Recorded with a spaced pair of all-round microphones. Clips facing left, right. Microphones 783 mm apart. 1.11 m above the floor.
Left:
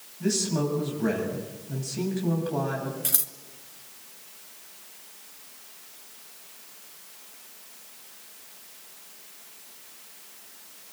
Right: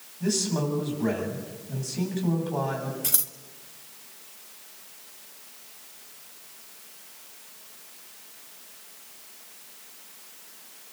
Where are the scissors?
70° right (ahead or behind), 2.5 m.